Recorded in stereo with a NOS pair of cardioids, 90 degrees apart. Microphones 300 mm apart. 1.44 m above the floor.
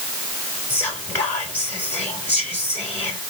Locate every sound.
0.7 s whispering: 5° left, 2.5 m